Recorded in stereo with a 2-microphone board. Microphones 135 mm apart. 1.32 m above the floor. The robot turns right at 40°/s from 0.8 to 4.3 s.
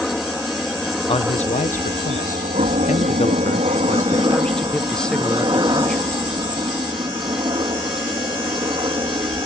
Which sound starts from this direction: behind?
A helicopter, at 0.0 s.